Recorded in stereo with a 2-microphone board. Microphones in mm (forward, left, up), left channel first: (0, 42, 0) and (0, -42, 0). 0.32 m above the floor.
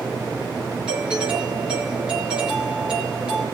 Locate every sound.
0.9 s a doorbell: 10° right (ahead or behind), 6 m